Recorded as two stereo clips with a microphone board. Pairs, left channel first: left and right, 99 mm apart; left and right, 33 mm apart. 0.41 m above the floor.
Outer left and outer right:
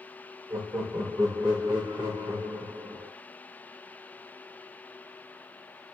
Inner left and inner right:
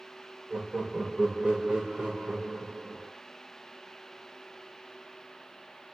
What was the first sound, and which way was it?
Laughter, 35° right (ahead or behind).